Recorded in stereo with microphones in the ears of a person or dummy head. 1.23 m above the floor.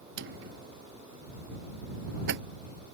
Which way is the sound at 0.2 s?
75° right (ahead or behind).